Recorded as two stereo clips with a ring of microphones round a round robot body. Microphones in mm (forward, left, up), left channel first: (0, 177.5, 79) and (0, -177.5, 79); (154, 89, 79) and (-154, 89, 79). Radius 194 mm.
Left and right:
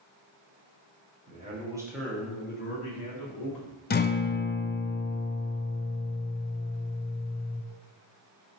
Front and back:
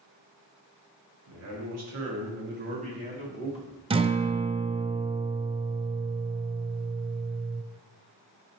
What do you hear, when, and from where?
1.3 s a man speaking: 155° right, 1.5 m; by 3.8 s 90° left, 1.6 m
3.9 s a guitar: 125° left, 0.6 m